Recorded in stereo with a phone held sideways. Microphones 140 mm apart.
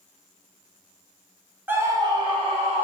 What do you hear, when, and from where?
1.7 s a scream: 15° right (ahead or behind), 0.6 m; by 2.9 s 50° right (ahead or behind), 1.1 m